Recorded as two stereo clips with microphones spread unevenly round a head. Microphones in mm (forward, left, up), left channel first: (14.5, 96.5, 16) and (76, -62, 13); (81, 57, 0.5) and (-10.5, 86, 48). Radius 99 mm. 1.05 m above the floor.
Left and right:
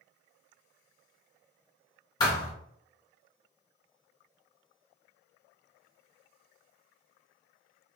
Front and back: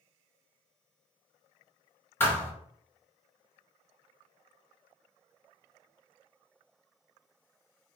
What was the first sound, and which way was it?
A thud, 80° left.